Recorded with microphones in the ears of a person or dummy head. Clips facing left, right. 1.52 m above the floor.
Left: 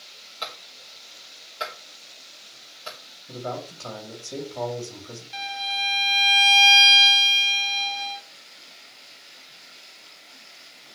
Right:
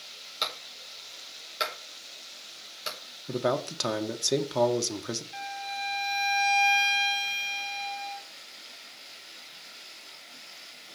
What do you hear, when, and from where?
0.4 s a clap: 30° right (ahead or behind), 5 m
3.3 s a man speaking: 85° right, 1.6 m
5.3 s a violin: 45° left (ahead or behind), 0.8 m